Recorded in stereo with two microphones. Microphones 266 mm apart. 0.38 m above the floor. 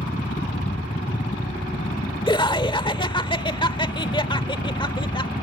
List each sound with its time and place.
0.0 s a helicopter: 35° left (ahead or behind)
2.3 s laughter: 20° left (ahead or behind)